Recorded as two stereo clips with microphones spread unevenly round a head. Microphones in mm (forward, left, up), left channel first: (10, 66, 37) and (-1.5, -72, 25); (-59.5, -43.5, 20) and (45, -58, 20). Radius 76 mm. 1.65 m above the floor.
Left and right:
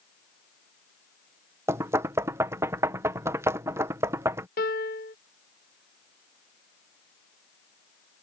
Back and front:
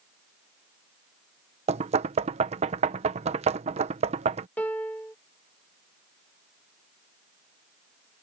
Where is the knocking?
20° right.